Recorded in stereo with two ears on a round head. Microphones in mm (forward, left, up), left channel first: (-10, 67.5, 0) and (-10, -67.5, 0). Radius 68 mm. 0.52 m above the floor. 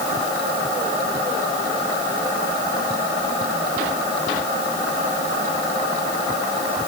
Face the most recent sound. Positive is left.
No sound to turn to.